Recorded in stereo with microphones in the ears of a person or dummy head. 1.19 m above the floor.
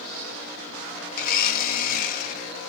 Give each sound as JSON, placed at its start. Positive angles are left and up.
{"t": 1.2, "sound": "a blender", "side_deg": 55, "distance_m": 1.5}